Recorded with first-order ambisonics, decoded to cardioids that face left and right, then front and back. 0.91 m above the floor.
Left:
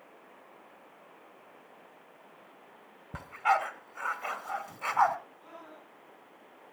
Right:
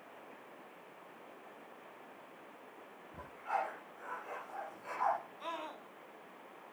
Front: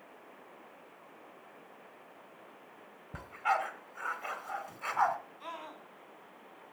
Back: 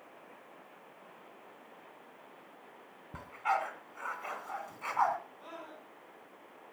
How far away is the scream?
About 3 m.